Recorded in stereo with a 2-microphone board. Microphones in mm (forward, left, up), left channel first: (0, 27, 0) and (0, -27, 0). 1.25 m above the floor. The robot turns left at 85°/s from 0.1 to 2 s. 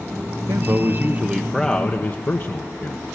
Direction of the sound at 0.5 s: 90° right.